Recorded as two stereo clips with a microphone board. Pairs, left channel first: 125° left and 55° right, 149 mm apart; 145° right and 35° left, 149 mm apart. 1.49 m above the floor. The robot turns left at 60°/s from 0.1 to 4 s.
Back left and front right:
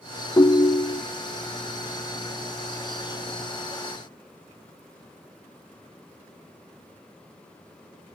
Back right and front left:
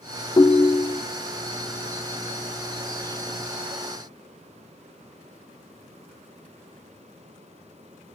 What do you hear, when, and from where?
0.4 s a ringtone: 175° left, 0.5 m; by 1.0 s 135° left, 0.5 m